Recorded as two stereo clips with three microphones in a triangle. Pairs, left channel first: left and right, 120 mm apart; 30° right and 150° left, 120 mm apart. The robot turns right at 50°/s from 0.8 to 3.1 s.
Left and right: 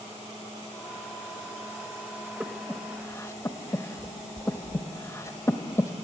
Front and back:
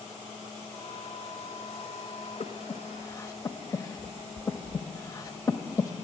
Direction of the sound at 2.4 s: 10° right.